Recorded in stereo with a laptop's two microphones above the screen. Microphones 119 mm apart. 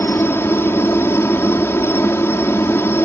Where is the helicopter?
20° left (ahead or behind).